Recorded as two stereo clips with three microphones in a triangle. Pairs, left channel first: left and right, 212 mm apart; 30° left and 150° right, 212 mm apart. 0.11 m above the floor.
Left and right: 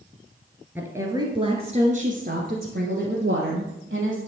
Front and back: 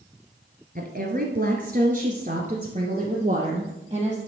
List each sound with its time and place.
0.8 s a woman speaking: 170° right, 1.5 m; by 4.2 s 85° right, 2.5 m